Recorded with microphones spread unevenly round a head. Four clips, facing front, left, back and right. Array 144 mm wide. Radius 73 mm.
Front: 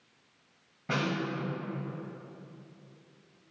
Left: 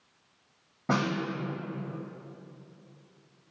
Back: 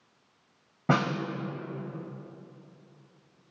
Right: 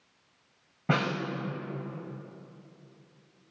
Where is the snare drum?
175° left, 1.4 m.